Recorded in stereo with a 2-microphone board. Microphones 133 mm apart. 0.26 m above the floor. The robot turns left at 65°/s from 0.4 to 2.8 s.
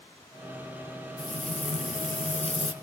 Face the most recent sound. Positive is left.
turn(degrees=35)